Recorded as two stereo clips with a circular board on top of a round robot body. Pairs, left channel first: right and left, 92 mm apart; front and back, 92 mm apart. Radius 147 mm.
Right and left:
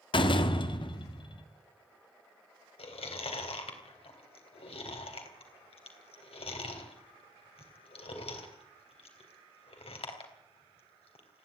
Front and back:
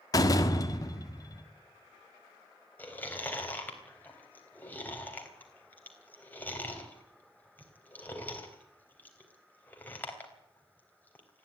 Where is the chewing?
75° right, 3.5 m.